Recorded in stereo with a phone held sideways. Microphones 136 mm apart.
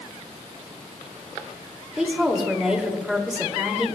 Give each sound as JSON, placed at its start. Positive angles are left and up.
{"t": 2.0, "sound": "a woman speaking", "side_deg": -5, "distance_m": 2.5}